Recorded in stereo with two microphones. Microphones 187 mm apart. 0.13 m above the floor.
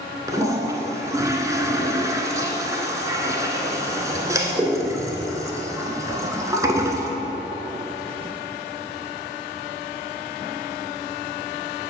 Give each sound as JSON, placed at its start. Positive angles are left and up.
{"t": 0.3, "sound": "a toilet flushing", "side_deg": -15, "distance_m": 0.7}